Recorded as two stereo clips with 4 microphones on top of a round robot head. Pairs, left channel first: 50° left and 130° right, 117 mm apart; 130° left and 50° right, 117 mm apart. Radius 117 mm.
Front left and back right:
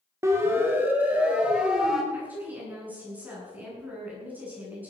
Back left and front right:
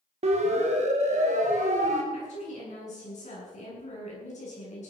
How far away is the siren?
About 2.5 m.